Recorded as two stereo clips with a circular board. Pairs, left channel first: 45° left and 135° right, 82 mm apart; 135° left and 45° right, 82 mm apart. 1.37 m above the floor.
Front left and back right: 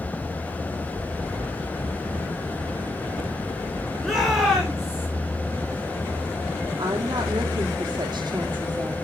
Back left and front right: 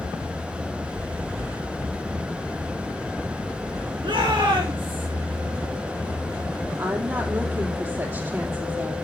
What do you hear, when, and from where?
4.0 s a shout: 45° right, 5.5 m; by 5.1 s 50° right, 6.5 m
6.8 s a woman speaking: 100° right, 3 m